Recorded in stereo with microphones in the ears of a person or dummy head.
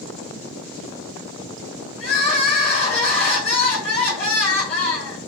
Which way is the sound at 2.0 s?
40° left (ahead or behind).